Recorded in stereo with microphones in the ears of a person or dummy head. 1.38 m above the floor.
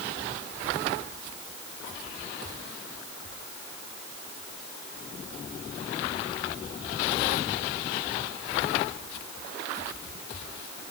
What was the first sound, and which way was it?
Only background noise.